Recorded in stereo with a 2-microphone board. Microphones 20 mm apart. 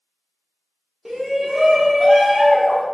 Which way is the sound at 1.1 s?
25° right (ahead or behind).